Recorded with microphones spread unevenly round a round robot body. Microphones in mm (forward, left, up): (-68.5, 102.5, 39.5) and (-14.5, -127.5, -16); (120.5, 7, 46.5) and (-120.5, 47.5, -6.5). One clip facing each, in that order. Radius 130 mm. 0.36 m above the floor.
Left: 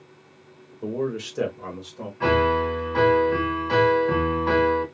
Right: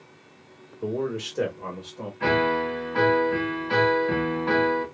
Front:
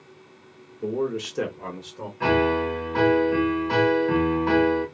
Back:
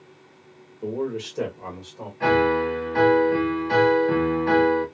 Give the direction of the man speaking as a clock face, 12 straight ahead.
4 o'clock.